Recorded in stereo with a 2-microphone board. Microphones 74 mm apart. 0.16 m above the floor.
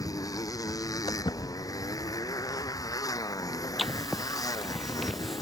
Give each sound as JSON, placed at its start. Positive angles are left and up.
{"t": 0.0, "sound": "a motorcycle", "side_deg": 50}
{"t": 1.1, "sound": "footsteps", "side_deg": 85}
{"t": 3.8, "sound": "writing", "side_deg": 0}